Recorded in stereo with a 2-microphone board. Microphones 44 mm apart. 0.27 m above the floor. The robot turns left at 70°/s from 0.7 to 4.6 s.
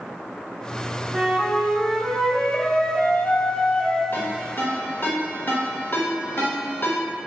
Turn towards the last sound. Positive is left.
turn(degrees=55)  # may be behind; listen again after turning